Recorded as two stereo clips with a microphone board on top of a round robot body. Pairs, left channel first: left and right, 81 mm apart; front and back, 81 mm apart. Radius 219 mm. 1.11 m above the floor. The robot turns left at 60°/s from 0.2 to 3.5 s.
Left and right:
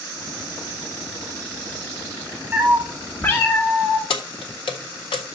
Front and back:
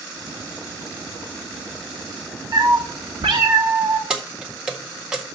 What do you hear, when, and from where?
2.5 s a cat meowing: 160° right, 0.9 m; by 4.0 s 140° left, 0.9 m
4.1 s keys jangling: 100° left, 0.5 m